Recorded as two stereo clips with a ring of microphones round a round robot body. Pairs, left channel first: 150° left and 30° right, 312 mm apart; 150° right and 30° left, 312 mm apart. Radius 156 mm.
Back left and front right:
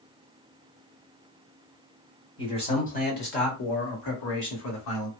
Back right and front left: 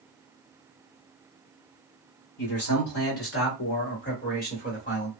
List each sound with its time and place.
2.4 s a man speaking: 140° right, 1.5 m; by 5.1 s 145° left, 1.8 m